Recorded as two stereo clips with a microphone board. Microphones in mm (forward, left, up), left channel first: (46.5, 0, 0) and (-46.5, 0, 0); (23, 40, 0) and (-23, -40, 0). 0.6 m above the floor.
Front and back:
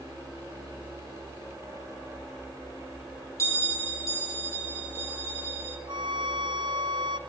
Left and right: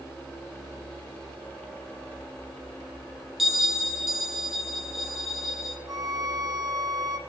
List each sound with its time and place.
3.4 s a bell: 35° right, 1.2 m
5.9 s a violin: 160° right, 1.1 m